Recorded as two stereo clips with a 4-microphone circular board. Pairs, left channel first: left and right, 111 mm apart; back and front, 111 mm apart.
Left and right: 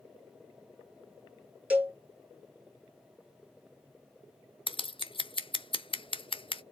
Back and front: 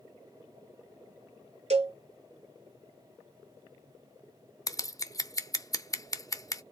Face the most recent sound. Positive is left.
turn(degrees=125)